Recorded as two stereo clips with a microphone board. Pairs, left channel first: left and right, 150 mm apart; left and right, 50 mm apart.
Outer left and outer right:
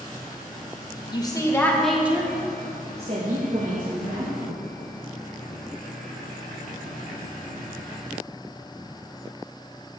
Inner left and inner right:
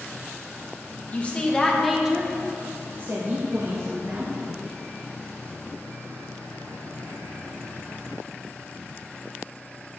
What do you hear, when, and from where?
1.1 s a woman speaking: 30° left (ahead or behind), 1.3 m; by 4.3 s 70° right (ahead or behind), 2 m